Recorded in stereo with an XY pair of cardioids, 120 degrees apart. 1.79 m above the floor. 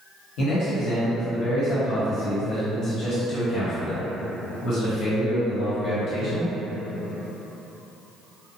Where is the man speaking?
60° left, 1.1 m.